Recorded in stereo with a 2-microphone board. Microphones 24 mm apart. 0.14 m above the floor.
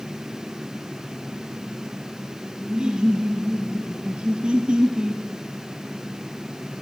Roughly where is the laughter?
Right.